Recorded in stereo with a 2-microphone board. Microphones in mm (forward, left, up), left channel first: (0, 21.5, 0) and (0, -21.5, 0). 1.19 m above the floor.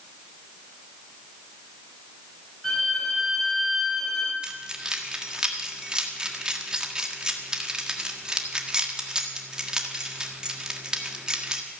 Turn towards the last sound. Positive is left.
turn(degrees=-20)  # may be behind; listen again after turning